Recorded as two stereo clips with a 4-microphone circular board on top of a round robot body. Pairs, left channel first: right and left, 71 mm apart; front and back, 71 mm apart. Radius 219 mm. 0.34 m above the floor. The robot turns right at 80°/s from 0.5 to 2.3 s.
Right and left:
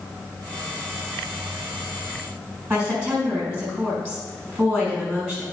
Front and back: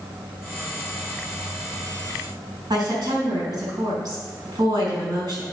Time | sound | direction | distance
2.7 | a woman speaking | 155° left | 4.5 m